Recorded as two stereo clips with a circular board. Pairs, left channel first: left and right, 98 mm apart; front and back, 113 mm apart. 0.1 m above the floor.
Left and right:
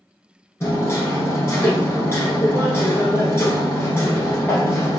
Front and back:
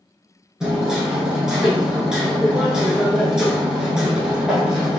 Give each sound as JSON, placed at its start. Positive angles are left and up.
{"t": 0.6, "sound": "hammering", "azimuth_deg": 105, "distance_m": 1.1}